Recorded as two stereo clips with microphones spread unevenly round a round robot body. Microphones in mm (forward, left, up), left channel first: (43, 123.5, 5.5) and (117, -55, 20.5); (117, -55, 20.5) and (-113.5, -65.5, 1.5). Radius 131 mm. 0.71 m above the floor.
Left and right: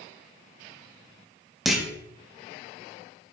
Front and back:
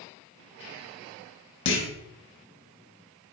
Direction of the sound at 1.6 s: 25° left.